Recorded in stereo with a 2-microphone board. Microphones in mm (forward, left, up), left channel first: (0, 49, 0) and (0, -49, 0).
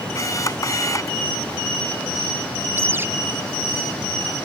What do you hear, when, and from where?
0.1 s a camera shutter: 35° left (ahead or behind)
2.8 s a bird: 25° right (ahead or behind)